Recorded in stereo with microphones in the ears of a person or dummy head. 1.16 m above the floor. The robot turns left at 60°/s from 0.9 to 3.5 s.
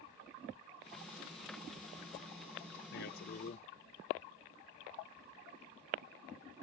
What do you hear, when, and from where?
2.9 s a man speaking: 85° left; by 3.7 s 50° left